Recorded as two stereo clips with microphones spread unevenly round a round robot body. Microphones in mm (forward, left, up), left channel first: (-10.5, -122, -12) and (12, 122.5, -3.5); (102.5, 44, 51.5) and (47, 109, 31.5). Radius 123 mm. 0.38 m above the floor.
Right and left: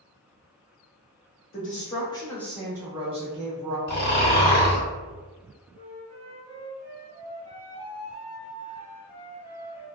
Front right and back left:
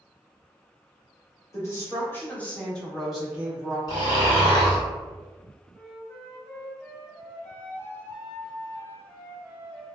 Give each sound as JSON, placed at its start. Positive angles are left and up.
{"t": 1.5, "sound": "a woman speaking", "azimuth_deg": -100, "distance_m": 1.0}
{"t": 3.9, "sound": "snoring", "azimuth_deg": -85, "distance_m": 1.1}
{"t": 5.7, "sound": "a flute", "azimuth_deg": 25, "distance_m": 1.5}